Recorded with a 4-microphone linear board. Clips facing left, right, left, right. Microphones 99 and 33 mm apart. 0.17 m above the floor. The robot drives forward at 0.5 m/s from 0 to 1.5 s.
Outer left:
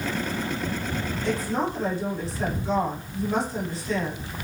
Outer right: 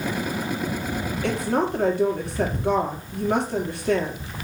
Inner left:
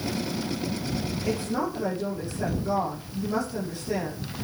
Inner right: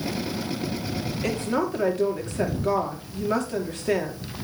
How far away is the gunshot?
I don't hear a gunshot.